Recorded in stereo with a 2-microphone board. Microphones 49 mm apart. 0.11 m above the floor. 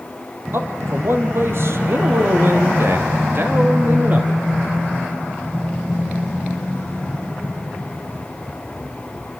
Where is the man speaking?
55° right (ahead or behind), 4 m; by 4.3 s 35° right (ahead or behind), 2.5 m.